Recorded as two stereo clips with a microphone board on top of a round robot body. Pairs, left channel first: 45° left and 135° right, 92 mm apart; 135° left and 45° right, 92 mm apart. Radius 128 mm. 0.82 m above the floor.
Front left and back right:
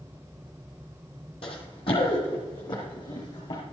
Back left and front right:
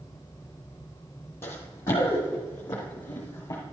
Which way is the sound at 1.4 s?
70° left.